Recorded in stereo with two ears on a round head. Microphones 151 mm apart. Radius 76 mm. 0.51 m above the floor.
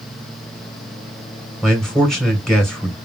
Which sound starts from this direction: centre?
A man speaking, at 1.6 s.